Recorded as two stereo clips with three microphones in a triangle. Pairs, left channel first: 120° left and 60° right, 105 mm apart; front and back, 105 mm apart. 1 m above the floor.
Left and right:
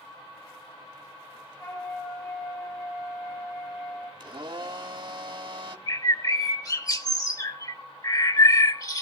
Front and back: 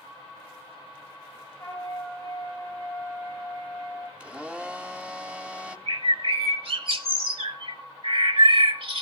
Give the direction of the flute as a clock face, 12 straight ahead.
10 o'clock.